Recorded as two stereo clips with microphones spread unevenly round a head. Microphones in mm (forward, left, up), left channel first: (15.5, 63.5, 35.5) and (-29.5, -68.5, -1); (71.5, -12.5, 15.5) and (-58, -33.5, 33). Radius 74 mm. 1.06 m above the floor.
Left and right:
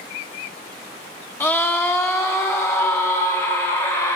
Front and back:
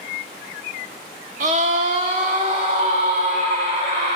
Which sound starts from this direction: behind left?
A scream, at 1.4 s.